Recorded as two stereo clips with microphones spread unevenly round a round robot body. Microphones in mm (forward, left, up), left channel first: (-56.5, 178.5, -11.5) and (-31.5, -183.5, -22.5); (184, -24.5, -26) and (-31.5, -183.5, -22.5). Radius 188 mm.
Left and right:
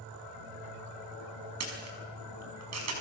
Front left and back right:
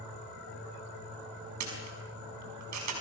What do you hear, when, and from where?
1.6 s a camera shutter: 135° right, 5.5 m